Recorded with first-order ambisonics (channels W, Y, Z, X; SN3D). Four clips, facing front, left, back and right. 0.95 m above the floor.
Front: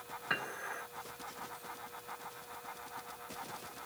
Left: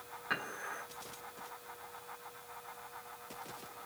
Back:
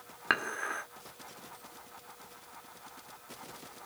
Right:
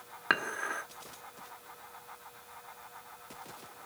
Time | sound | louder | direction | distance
0.3 | dishes clattering | right 8 dB, back 7 dB | 135° right | 1.6 m